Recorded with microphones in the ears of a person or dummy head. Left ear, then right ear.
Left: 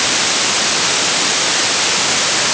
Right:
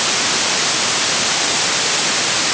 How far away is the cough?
No cough in this recording.